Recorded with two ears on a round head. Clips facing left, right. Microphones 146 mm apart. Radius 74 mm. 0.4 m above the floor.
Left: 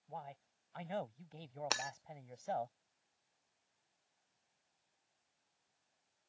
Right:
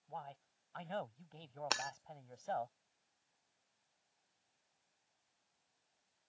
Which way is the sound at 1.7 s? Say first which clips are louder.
Right 1 dB; 5° left (ahead or behind).